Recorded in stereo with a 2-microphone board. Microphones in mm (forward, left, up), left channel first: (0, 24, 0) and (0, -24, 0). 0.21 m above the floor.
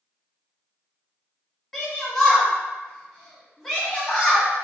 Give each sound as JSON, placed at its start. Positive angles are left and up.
{"t": 1.7, "sound": "a shout", "side_deg": 5, "distance_m": 1.2}